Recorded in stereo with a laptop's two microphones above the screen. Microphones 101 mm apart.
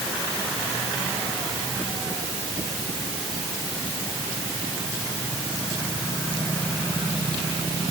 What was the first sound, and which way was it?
Only background noise.